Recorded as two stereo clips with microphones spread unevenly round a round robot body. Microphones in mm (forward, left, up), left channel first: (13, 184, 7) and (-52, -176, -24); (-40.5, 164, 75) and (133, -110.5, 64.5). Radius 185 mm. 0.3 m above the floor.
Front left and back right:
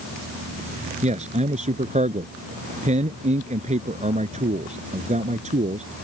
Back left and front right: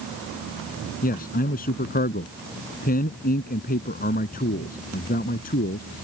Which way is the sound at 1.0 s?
170° right.